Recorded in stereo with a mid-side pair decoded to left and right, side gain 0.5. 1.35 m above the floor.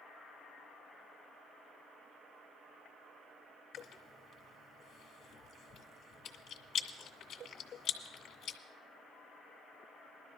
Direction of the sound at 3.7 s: 70° left.